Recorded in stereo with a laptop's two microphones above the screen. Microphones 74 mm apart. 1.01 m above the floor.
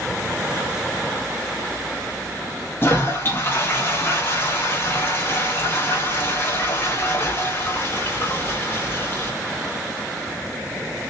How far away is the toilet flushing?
About 0.9 m.